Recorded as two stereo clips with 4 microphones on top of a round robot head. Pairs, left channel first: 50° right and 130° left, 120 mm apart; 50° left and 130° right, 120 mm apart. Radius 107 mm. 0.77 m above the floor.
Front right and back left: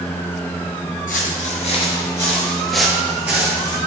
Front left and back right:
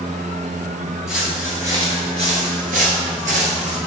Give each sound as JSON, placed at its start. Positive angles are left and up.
{"t": 1.1, "sound": "footsteps", "azimuth_deg": -50, "distance_m": 1.0}